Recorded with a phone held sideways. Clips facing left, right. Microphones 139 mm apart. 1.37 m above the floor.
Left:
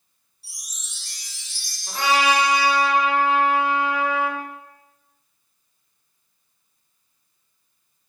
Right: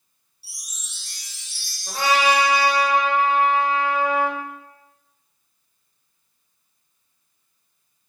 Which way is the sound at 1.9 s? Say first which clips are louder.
Right 1 dB; 40° right (ahead or behind).